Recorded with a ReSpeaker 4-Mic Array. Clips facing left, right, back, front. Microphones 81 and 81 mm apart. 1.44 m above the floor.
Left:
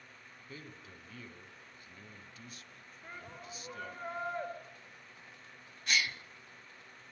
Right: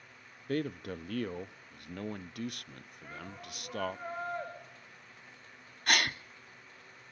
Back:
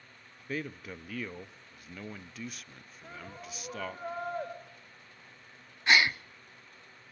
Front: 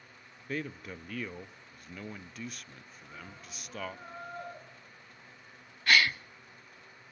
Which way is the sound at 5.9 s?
110° right.